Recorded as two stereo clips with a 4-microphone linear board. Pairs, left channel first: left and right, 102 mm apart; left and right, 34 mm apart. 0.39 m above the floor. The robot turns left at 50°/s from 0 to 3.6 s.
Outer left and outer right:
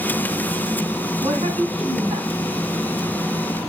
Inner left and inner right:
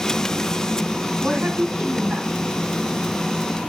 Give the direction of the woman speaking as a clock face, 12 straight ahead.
2 o'clock.